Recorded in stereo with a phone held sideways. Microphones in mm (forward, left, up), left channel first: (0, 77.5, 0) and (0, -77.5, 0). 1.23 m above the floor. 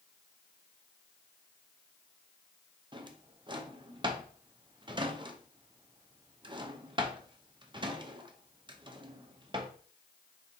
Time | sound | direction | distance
2.9 | a drawer | 30° right (ahead or behind) | 0.5 m